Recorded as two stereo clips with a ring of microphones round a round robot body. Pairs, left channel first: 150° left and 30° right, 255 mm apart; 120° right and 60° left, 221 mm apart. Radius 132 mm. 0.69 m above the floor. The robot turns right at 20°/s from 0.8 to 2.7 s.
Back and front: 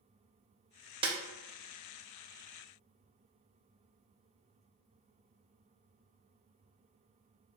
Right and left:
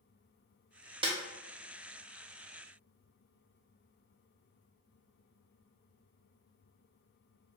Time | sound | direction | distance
1.0 | a snare drum | 20° left | 0.7 m